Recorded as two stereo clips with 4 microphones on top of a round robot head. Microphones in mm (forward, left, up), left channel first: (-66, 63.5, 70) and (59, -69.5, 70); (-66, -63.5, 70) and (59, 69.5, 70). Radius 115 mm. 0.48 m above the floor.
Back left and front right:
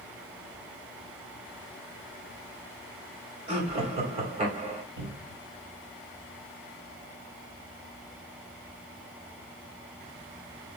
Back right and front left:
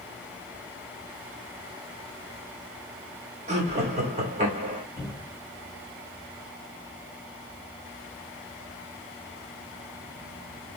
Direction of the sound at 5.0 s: 50° right.